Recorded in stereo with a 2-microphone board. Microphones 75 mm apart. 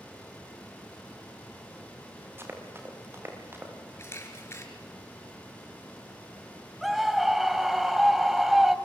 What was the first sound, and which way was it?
Running footsteps, 30° right (ahead or behind).